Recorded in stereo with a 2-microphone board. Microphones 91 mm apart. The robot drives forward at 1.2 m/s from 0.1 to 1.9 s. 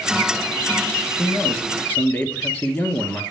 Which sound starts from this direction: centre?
A man speaking, at 1.2 s.